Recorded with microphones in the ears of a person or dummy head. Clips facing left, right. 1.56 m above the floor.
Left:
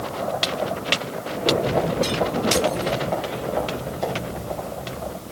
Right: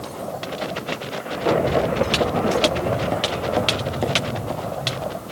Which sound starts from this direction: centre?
Footsteps, at 1.3 s.